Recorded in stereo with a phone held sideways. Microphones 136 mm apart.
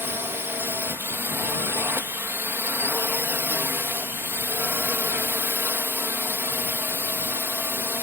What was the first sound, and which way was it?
A drone, 15° right (ahead or behind).